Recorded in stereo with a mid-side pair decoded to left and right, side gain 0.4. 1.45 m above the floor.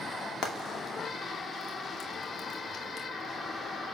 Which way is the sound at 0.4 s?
65° left.